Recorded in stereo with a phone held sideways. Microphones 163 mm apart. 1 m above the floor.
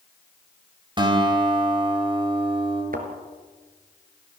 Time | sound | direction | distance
1.0 | a guitar | 30° right (ahead or behind) | 4.5 m
2.9 | a thud | 65° right (ahead or behind) | 3 m